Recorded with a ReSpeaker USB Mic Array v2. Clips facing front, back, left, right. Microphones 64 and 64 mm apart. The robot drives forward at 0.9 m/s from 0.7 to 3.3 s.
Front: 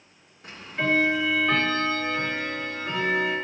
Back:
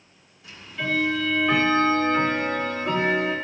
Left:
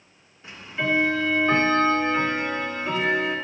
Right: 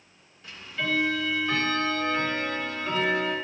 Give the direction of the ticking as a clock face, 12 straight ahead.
11 o'clock.